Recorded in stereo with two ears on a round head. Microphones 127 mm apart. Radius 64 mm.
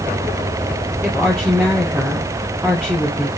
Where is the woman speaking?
5° right (ahead or behind), 3 m.